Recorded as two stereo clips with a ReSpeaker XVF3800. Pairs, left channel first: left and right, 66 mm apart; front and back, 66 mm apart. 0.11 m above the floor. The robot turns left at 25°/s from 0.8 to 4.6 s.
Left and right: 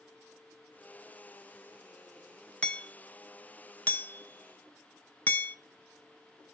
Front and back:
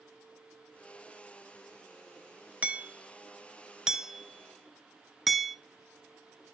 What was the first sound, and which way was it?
Hammering, 140° left.